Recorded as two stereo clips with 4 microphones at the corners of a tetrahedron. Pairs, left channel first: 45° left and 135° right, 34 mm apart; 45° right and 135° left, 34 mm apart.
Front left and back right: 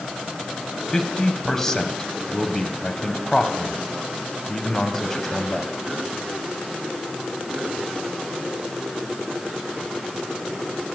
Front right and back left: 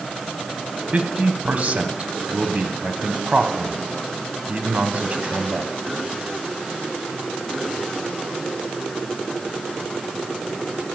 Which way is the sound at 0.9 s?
120° left.